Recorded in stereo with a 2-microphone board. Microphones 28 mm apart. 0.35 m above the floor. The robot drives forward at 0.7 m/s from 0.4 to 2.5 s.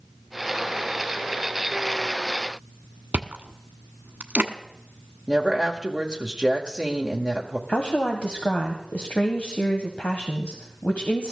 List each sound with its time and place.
3.1 s chewing: 80° right, 1.2 m
5.3 s a woman speaking: 25° right (ahead or behind), 1.5 m
7.7 s a woman speaking: 60° left (ahead or behind), 1.7 m